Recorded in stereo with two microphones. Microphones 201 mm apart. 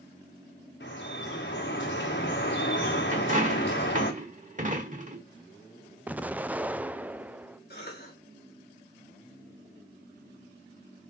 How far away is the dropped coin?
About 1.5 m.